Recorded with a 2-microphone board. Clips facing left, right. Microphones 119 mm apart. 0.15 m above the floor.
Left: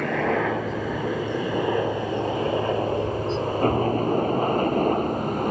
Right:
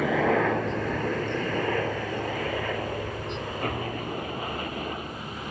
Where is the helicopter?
5° right (ahead or behind); by 5.5 s 50° left (ahead or behind).